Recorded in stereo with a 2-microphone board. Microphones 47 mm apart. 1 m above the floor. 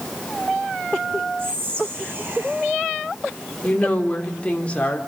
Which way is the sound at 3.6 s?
25° left (ahead or behind).